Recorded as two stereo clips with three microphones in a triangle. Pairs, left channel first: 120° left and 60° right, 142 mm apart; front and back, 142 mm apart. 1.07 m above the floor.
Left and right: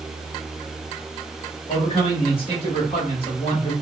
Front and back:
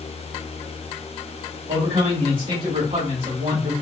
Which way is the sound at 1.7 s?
165° left.